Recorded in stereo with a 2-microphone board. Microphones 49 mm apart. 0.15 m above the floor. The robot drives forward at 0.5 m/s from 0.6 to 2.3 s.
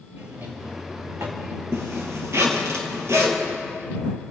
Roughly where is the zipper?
Right.